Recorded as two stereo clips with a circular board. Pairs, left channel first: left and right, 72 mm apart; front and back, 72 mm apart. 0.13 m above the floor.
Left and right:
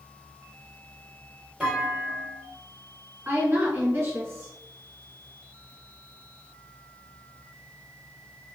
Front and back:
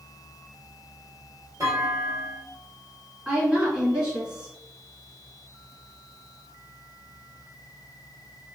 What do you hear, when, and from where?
1.6 s a clunk: 170° right, 1.6 m
3.2 s a woman speaking: 115° right, 1.6 m